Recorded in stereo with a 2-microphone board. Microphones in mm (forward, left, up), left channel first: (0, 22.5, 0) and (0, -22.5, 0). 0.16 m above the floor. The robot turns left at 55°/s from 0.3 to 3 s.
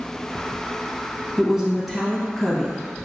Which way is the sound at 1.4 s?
15° right (ahead or behind).